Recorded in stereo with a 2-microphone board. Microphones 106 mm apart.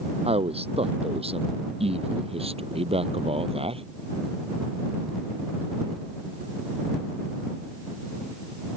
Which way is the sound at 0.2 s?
70° right (ahead or behind).